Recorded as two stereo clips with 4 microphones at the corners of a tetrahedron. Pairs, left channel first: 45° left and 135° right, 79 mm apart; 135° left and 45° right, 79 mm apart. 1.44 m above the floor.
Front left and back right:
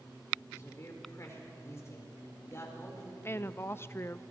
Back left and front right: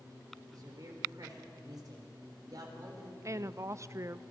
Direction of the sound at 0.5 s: 10° right.